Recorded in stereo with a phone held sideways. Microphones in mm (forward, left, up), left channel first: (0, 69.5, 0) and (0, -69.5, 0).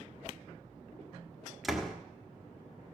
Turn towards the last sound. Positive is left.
turn(degrees=0)  # may be behind; listen again after turning